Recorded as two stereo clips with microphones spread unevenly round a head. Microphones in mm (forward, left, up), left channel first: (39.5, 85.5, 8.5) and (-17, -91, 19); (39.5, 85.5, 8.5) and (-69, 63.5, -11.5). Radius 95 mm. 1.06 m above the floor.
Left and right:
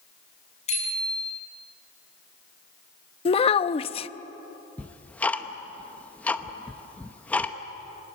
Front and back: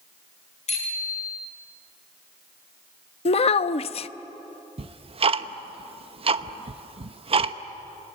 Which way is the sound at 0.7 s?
15° left.